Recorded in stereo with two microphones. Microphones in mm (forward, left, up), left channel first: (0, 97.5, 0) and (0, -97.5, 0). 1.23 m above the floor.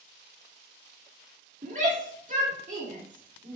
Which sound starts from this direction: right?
A shout, at 1.6 s.